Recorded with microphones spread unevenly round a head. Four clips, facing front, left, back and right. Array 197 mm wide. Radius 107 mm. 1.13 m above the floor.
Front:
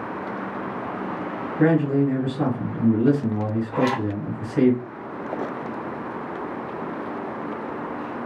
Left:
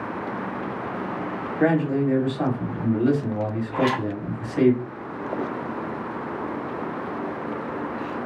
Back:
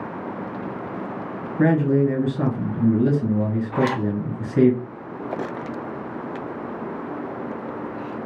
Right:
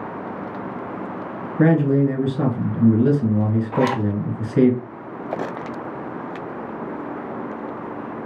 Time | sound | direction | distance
1.6 | a man speaking | 105° right | 1.4 m
3.7 | a zipper | 80° right | 0.6 m